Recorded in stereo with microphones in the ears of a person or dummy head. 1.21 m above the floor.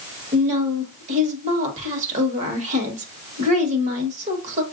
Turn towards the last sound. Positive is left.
turn(degrees=-45)  # may be behind; listen again after turning